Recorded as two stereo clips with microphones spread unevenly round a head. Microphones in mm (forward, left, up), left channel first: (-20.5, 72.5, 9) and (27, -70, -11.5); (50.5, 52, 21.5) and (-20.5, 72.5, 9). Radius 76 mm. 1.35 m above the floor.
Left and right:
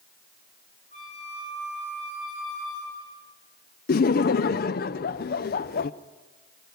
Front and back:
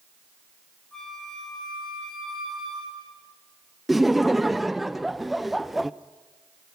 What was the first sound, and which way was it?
A flute, 65° left.